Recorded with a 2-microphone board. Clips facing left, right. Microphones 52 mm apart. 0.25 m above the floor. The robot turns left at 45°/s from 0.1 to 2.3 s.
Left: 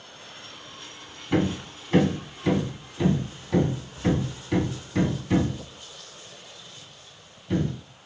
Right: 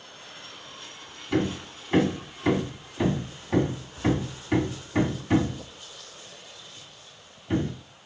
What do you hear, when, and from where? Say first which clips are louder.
1.3 s hammering: left 2 dB; 15° left (ahead or behind), 1.8 m; by 7.7 s 20° right (ahead or behind), 1.8 m